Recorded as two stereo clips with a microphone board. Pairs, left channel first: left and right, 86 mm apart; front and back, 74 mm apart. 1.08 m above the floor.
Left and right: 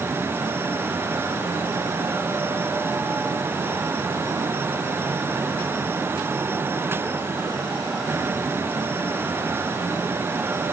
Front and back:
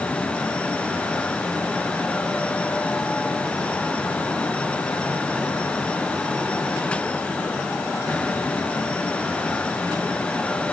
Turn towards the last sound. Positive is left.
No sound to turn to.